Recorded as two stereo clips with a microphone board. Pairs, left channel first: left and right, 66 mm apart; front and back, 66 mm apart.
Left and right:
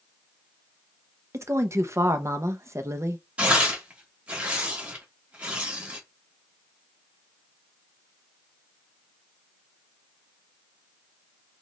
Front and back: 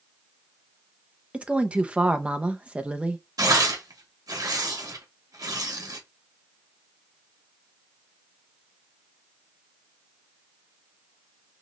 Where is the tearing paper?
160° right, 1.2 m.